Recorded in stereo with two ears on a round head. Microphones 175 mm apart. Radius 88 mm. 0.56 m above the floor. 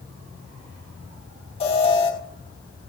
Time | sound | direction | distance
1.6 | an alarm | 30° left (ahead or behind) | 3.5 m